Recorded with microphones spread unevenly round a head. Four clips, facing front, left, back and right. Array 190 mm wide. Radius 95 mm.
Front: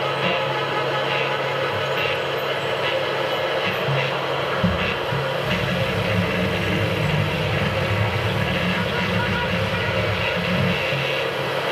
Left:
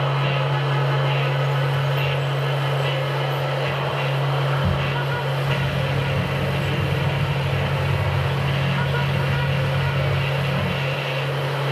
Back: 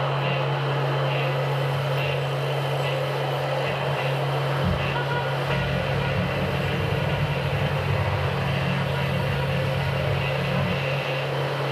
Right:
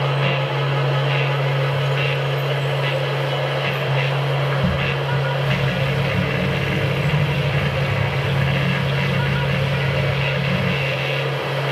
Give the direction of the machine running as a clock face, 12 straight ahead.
2 o'clock.